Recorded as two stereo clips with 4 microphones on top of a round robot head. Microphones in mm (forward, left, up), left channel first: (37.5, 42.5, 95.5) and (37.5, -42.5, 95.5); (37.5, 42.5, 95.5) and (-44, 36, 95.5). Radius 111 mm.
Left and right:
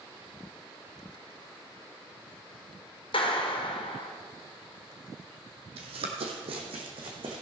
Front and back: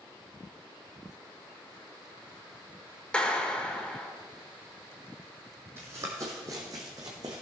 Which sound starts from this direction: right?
Running footsteps, at 5.8 s.